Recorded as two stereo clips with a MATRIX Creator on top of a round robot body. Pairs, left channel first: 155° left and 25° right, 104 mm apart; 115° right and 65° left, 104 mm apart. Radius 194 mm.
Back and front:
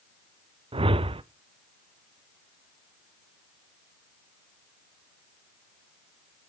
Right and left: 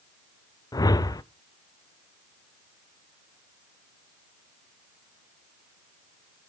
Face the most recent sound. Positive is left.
turn(degrees=-55)